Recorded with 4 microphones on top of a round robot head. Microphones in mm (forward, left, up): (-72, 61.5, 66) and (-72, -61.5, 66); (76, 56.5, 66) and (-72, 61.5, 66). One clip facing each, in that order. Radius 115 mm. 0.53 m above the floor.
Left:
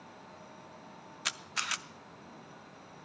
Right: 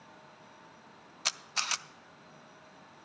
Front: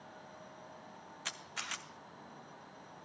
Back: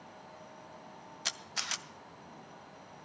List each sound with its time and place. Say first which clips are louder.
1.2 s a camera shutter: right 1 dB, back 4 dB; 140° right, 0.6 m